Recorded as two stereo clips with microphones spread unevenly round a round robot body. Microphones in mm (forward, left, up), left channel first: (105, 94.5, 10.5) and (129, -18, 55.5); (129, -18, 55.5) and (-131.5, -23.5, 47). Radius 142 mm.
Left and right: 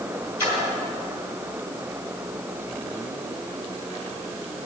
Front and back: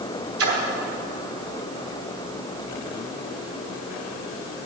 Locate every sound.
0.4 s a splash: 160° left, 3 m